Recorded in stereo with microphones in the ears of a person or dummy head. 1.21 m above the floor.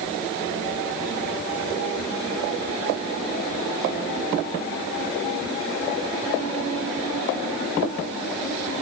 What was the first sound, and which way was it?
Only background noise.